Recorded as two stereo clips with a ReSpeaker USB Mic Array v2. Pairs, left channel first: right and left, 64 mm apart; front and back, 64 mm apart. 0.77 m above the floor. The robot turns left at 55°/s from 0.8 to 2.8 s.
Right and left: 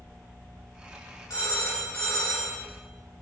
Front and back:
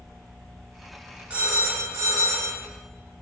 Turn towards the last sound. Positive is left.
turn(degrees=160)